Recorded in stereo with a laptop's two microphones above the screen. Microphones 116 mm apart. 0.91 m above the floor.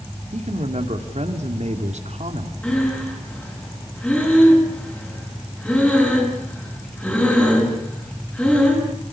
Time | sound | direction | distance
0.3 | a man speaking | 75° right (ahead or behind) | 2.5 m
2.6 | breathing | 10° left (ahead or behind) | 5 m